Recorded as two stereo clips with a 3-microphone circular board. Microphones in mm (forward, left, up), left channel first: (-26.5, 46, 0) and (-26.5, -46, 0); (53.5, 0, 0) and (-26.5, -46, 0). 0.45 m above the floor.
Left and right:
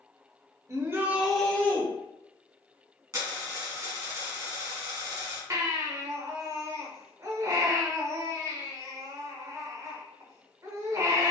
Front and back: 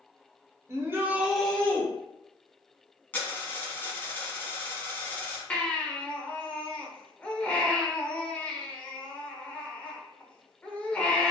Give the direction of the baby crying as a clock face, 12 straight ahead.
1 o'clock.